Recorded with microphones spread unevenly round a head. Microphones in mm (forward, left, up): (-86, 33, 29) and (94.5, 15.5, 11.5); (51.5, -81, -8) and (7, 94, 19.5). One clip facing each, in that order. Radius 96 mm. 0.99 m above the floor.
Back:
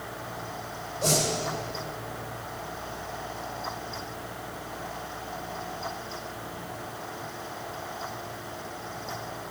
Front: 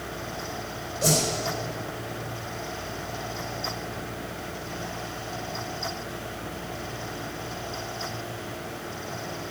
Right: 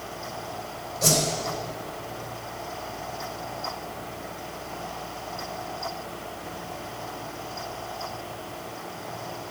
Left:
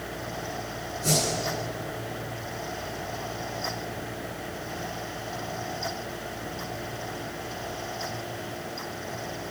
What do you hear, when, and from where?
1.0 s a whoosh: 85° right, 3.5 m